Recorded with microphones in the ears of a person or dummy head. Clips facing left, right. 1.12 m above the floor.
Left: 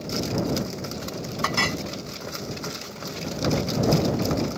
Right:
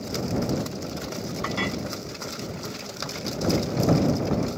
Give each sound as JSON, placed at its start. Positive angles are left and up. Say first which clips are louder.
{"t": 1.4, "sound": "a clink", "louder": "left 2 dB", "side_deg": 60}